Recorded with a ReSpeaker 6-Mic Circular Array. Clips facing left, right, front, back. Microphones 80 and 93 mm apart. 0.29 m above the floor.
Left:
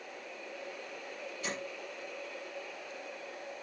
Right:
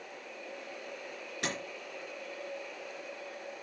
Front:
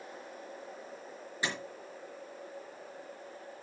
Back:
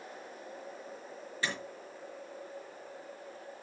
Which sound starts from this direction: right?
A door slam, at 1.4 s.